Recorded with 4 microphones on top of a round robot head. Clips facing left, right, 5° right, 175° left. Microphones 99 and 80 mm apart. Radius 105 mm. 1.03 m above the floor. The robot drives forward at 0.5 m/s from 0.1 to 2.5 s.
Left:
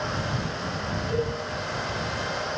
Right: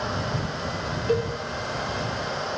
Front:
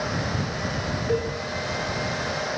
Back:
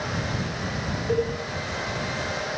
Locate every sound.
1.1 s a cowbell: 125° right, 1.6 m; by 1.2 s 130° right, 1.6 m